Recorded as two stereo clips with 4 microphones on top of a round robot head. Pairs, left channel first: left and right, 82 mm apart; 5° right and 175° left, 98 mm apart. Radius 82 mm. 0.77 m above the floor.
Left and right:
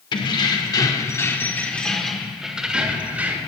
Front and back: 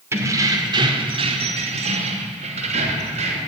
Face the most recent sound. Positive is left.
turn(degrees=-160)